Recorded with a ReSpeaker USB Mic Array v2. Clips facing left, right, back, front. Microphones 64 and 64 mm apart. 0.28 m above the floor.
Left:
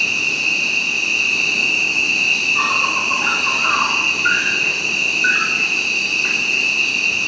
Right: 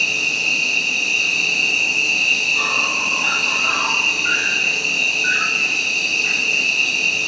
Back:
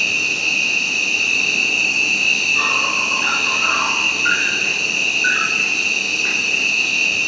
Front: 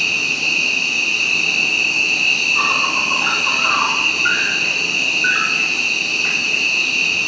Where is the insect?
40° left, 3 m.